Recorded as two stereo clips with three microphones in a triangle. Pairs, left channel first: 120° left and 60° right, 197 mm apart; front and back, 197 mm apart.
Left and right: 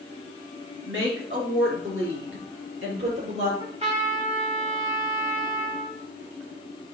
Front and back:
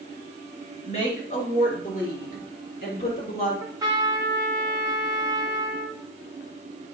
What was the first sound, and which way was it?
A woman speaking, 55° right.